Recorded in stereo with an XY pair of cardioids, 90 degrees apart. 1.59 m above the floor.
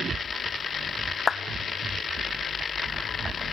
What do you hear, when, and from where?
1.3 s a clap: 40° left, 1.3 m